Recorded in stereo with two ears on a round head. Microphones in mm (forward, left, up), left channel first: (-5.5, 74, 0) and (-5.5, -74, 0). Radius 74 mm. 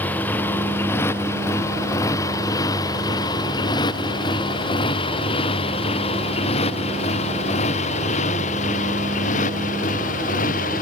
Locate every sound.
0.0 s a motorcycle: 10° left (ahead or behind); by 10.8 s 50° left (ahead or behind)